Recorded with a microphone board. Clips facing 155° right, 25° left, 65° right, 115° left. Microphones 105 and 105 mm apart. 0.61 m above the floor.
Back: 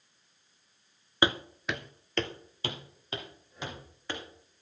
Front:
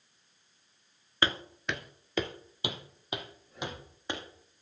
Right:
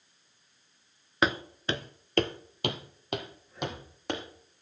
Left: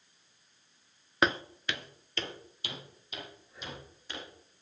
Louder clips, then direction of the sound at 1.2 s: Back 3 dB, right 1 dB; 155° right.